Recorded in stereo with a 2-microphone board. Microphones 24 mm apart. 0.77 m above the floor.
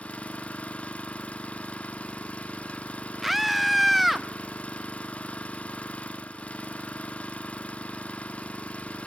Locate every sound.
0.0 s an engine running: 85° left, 0.7 m
3.2 s a scream: 5° right (ahead or behind), 0.5 m